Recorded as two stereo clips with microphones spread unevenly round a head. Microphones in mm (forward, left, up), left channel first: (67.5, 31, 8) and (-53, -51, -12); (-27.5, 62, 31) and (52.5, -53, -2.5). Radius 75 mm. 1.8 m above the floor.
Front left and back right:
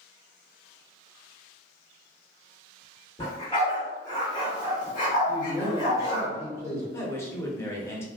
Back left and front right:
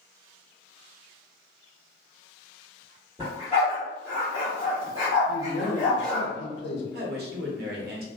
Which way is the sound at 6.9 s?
40° right.